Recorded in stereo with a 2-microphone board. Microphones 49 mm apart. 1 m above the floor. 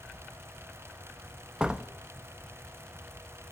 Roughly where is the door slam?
Centre.